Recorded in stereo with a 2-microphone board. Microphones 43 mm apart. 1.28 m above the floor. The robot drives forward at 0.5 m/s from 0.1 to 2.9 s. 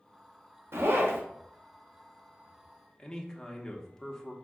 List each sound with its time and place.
0.7 s a zipper: 65° right (ahead or behind), 0.6 m; by 1.2 s 55° right (ahead or behind), 0.7 m
3.0 s a man speaking: 10° left (ahead or behind), 0.8 m